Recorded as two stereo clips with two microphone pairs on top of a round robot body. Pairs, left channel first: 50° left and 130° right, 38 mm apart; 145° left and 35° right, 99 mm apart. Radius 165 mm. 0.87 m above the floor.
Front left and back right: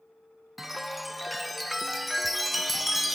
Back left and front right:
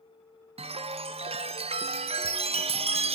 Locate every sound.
0.6 s a chime: 35° right, 0.5 m